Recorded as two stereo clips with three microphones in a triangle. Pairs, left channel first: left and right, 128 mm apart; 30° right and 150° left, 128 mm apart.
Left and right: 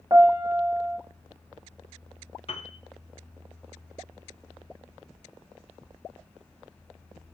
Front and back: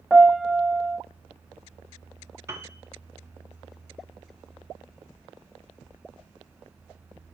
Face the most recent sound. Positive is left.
turn(degrees=90)